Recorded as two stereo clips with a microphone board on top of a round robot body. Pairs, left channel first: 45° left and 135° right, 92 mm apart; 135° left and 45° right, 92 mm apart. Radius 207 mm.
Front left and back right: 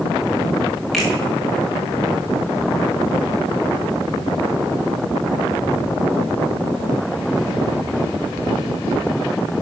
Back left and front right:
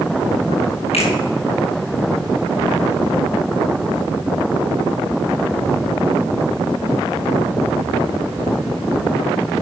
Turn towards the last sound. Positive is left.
turn(degrees=135)